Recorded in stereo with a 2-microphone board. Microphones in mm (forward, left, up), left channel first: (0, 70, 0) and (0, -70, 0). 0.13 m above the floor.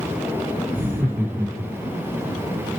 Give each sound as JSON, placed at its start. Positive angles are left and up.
{"t": 0.7, "sound": "laughter", "side_deg": -15, "distance_m": 7.0}